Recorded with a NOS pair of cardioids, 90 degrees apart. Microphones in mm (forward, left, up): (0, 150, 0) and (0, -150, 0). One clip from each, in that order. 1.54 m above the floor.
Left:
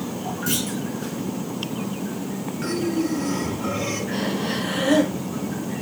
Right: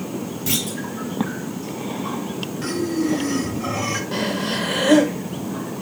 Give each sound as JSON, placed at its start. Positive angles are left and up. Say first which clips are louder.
{"t": 0.5, "sound": "a clunk", "louder": "right 3 dB", "azimuth_deg": -30, "distance_m": 3.0}
{"t": 2.6, "sound": "breathing", "louder": "right 1 dB", "azimuth_deg": -40, "distance_m": 4.5}
{"t": 4.1, "sound": "breathing", "louder": "right 2 dB", "azimuth_deg": -65, "distance_m": 1.7}